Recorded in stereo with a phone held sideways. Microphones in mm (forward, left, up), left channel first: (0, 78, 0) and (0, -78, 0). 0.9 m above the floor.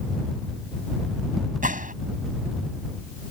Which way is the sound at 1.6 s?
60° right (ahead or behind).